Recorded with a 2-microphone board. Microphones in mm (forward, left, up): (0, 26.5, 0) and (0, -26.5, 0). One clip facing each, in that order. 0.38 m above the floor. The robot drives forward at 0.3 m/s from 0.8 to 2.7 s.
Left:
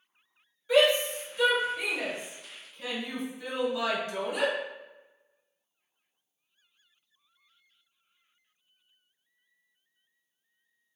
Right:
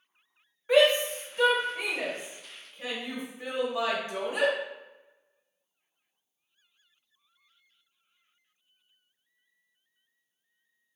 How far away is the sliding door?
I don't hear a sliding door.